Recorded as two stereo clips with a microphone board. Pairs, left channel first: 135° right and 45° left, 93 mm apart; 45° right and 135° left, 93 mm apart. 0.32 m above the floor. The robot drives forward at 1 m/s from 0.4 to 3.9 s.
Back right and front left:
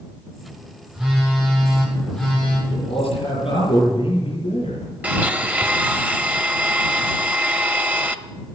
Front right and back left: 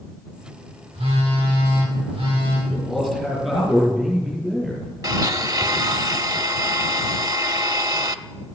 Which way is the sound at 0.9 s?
130° left.